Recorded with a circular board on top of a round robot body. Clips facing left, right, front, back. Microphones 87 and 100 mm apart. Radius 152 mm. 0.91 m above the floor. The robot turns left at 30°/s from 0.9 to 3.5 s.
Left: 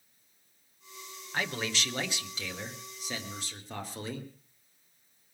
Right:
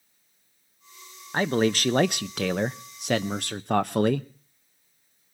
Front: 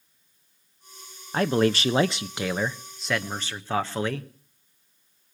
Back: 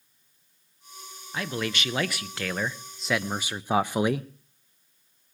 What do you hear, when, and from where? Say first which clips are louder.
1.3 s a man speaking: right 11 dB, front 9 dB; 40° right, 0.6 m; by 4.3 s 105° right, 0.6 m